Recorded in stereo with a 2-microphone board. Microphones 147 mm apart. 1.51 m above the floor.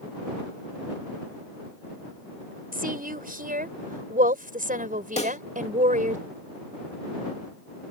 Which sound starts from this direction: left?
A pop, at 5.2 s.